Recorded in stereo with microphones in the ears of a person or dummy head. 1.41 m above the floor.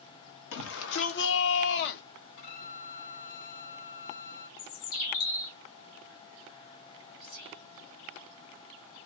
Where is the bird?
70° left (ahead or behind), 0.9 m.